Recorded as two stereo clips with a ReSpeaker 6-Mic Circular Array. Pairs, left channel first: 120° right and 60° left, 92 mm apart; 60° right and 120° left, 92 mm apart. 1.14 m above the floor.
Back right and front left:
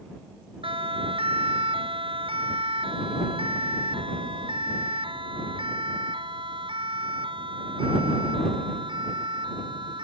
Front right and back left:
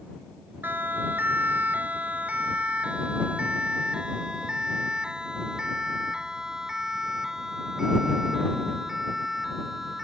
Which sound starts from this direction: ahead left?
A siren, at 0.6 s.